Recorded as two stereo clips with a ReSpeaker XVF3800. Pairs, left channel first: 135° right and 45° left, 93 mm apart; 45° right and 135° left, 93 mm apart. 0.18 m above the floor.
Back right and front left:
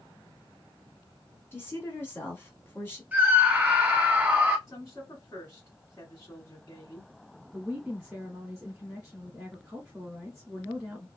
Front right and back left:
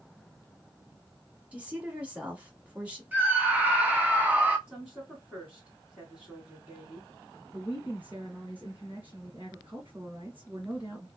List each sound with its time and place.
1.5 s a woman speaking: 165° right, 1.1 m
3.1 s a scream: 95° left, 1.1 m
4.7 s a woman speaking: 155° right, 1.6 m
7.5 s a woman speaking: 95° left, 1.4 m